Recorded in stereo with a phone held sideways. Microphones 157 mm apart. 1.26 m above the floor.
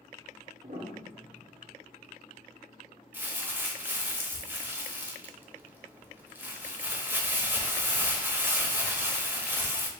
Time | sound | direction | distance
0.6 | a piano | 50° right (ahead or behind) | 1.4 m
3.1 | crumpling | 15° right (ahead or behind) | 0.7 m